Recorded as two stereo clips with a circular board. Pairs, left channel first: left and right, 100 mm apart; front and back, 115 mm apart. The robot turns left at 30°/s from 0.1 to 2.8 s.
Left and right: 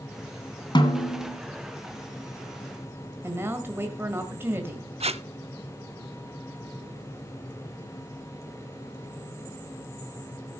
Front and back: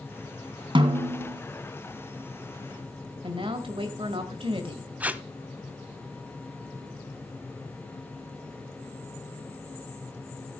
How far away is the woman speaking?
About 1.7 m.